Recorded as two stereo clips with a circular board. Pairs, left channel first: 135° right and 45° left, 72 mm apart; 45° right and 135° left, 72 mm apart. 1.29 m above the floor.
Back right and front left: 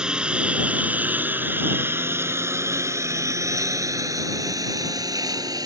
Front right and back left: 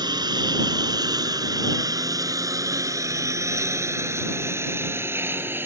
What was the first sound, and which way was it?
A lawn mower, 125° left.